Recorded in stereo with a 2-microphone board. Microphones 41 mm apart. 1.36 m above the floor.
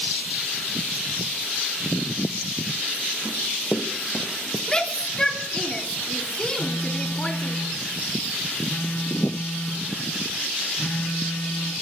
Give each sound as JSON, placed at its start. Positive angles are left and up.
{"t": 3.2, "sound": "running footsteps", "side_deg": 55, "distance_m": 3.0}
{"t": 4.7, "sound": "a shout", "side_deg": 15, "distance_m": 3.0}
{"t": 6.6, "sound": "a phone buzzing", "side_deg": 65, "distance_m": 4.5}